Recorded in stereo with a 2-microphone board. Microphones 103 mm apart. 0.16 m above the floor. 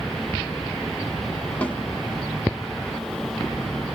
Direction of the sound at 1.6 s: 15° left (ahead or behind).